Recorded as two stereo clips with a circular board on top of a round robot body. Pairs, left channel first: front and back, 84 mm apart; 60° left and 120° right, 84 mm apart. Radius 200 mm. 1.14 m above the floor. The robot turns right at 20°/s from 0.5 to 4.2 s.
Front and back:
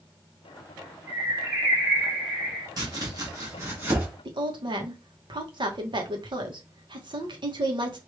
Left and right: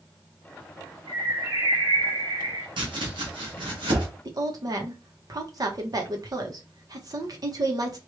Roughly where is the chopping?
Behind right.